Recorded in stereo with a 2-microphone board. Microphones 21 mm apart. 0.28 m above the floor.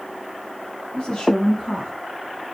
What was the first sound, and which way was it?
A woman speaking, 50° left (ahead or behind).